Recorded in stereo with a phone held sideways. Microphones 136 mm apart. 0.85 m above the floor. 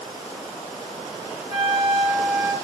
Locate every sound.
1.5 s a flute: 50° left (ahead or behind), 1.8 m